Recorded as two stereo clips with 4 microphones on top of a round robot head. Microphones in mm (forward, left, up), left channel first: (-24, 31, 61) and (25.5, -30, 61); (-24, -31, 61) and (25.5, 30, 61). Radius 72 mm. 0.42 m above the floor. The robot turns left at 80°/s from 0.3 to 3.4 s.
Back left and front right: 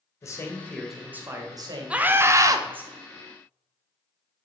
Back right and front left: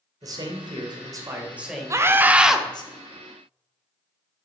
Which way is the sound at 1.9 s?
20° left.